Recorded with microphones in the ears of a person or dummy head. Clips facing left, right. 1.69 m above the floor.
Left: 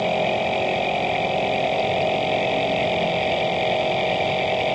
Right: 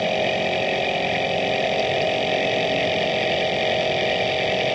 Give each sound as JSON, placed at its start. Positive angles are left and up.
{"t": 0.0, "sound": "a machine running", "side_deg": -20}